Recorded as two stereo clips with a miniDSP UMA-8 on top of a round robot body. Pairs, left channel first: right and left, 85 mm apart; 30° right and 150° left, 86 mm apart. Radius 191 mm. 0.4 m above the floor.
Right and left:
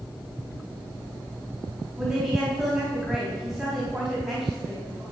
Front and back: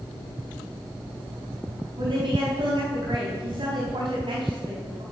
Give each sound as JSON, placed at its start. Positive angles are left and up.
{"t": 2.0, "sound": "a woman speaking", "azimuth_deg": 175, "distance_m": 4.5}